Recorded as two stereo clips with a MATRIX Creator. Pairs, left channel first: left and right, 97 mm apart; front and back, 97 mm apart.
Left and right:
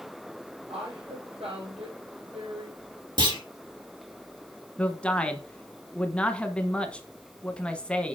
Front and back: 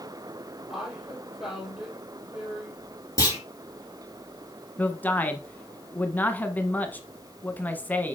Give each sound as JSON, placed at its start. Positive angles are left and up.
{"t": 0.7, "sound": "a woman speaking", "azimuth_deg": -95, "distance_m": 5.0}
{"t": 3.2, "sound": "a clunk", "azimuth_deg": -55, "distance_m": 4.0}
{"t": 4.8, "sound": "a man speaking", "azimuth_deg": 35, "distance_m": 1.2}